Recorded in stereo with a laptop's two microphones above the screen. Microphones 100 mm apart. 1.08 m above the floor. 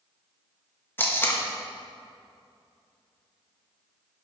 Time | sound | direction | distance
1.0 | tape being pulled | 20° left (ahead or behind) | 1.8 m